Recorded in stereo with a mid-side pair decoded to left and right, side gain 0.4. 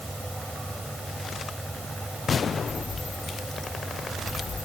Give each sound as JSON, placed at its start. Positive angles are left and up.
{"t": 0.0, "sound": "a fan", "azimuth_deg": 0}